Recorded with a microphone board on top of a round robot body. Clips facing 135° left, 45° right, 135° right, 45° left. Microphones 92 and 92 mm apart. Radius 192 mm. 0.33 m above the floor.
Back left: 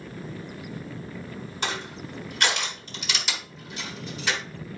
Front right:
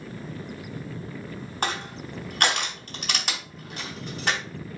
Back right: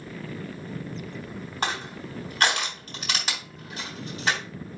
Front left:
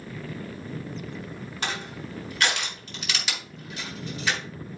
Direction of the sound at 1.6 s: 80° right.